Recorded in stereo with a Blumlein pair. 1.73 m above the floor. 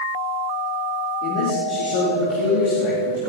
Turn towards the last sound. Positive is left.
turn(degrees=50)